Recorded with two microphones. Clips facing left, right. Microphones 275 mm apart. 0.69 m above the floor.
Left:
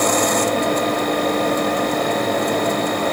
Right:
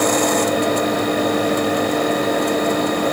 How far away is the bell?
I don't hear a bell.